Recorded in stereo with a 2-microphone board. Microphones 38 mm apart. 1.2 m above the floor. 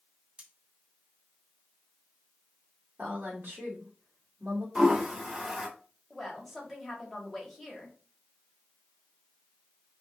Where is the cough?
No cough in this recording.